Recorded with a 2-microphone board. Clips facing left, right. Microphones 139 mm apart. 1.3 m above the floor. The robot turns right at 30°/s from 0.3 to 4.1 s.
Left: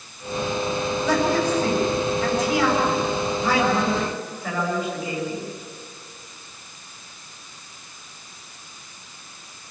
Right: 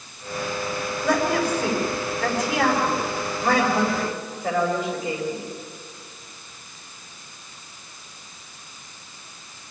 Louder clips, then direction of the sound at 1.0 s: Even; 120° right.